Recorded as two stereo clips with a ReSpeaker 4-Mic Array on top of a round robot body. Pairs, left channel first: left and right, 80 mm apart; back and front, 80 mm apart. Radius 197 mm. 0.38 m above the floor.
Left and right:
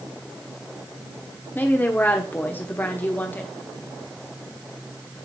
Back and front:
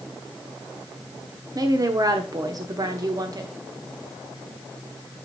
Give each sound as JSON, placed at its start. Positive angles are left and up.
{"t": 1.6, "sound": "a woman speaking", "azimuth_deg": 25, "distance_m": 1.3}